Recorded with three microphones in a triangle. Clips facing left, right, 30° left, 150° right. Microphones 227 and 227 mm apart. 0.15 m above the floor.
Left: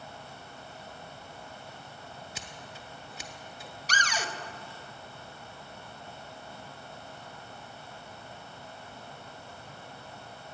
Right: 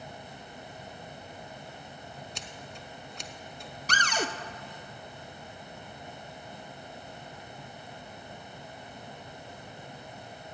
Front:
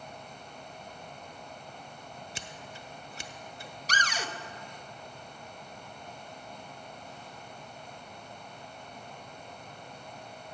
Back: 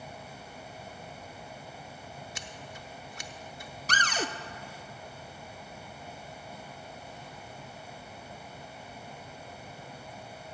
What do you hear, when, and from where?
2.4 s scissors: 10° left, 0.7 m
3.9 s a cupboard door: 120° right, 0.6 m